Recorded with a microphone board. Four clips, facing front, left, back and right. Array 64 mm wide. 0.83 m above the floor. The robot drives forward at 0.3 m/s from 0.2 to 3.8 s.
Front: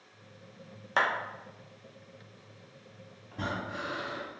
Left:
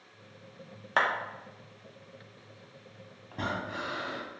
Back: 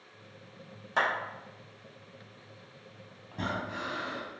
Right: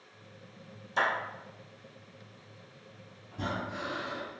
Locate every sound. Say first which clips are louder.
1.0 s a clap: left 2 dB, front 1 dB; 65° left, 1.0 m
3.3 s breathing: left 1 dB, back 1 dB; 110° left, 1.2 m; by 4.3 s 115° left, 1.2 m